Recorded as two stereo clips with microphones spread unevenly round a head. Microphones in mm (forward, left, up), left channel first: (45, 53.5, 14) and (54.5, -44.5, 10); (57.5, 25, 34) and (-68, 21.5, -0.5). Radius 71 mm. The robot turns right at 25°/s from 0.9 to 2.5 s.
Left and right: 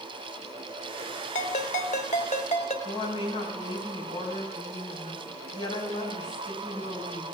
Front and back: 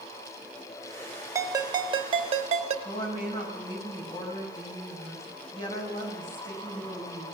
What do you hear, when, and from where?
1.4 s a ringtone: 115° left, 1.4 m; by 2.8 s 145° left, 1.4 m
2.9 s a woman speaking: 55° left, 5.5 m